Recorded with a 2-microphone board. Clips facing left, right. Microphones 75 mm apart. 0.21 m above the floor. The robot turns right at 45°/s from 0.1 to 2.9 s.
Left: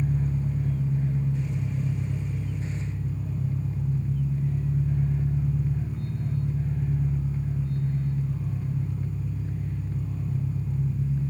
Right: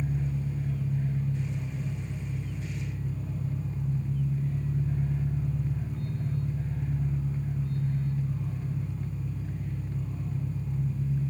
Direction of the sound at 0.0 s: 50° left.